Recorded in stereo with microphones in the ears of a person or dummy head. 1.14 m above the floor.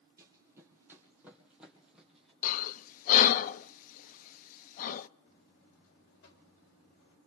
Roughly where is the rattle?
I don't hear a rattle.